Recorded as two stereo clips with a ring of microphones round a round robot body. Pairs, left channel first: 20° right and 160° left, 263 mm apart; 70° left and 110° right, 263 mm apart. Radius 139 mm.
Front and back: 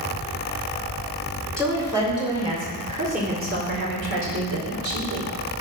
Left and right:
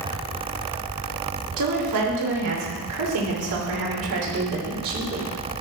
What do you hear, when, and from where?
1.6 s a woman speaking: 120° right, 3.5 m; by 5.3 s 175° right, 3.5 m